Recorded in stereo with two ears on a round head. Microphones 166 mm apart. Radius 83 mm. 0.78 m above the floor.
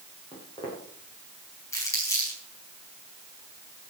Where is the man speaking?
No man speaking in this recording.